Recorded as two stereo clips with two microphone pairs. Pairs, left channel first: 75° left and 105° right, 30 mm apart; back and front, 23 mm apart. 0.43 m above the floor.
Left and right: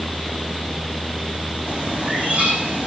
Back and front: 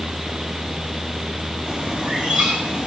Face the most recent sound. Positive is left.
turn(degrees=-55)